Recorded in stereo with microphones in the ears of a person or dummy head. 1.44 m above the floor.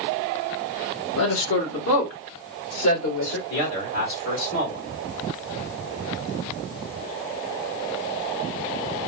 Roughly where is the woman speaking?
Left.